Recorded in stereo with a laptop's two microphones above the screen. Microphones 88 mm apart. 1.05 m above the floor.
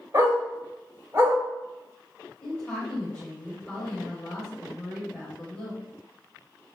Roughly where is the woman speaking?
Centre.